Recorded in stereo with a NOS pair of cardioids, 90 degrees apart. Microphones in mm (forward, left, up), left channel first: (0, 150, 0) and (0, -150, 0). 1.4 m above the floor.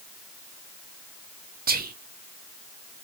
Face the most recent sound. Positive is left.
turn(degrees=-30)